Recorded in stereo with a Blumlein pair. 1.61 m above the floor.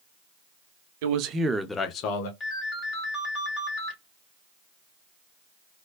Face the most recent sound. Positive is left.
turn(degrees=25)